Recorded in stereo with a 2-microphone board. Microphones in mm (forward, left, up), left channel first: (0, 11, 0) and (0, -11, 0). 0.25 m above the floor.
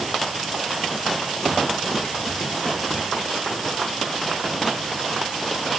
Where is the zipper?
No zipper in this recording.